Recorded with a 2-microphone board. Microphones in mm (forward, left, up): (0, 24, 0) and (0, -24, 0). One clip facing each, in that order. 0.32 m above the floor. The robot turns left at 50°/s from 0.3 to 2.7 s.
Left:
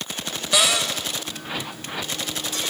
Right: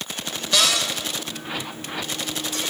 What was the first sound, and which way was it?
A cupboard door, 15° left (ahead or behind).